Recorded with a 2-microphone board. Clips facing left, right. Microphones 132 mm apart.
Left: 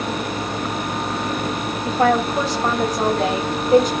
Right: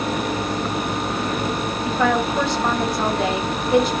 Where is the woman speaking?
40° left (ahead or behind), 1.4 m.